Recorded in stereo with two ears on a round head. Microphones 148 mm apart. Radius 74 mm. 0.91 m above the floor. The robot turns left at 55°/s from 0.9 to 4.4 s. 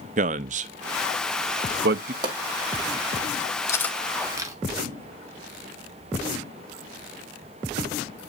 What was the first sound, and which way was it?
A man speaking, 45° right (ahead or behind).